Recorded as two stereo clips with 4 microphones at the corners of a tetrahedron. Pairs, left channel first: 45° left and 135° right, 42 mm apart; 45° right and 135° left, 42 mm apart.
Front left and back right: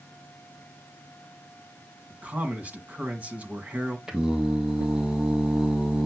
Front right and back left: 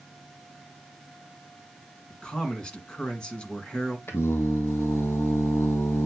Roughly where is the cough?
No cough in this recording.